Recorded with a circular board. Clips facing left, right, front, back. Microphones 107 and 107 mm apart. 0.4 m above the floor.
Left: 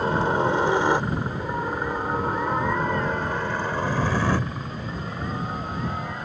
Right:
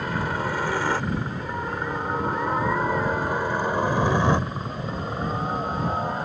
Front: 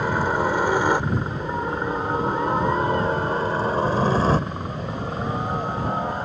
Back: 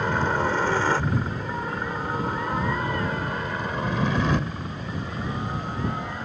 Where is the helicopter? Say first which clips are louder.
Left 5 dB, front 2 dB; 75° left; by 6.2 s 40° right.